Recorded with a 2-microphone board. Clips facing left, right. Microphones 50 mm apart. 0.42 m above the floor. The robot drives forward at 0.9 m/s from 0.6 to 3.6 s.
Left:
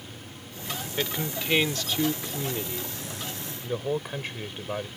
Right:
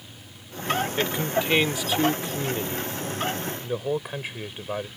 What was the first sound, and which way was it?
A man speaking, 10° right (ahead or behind).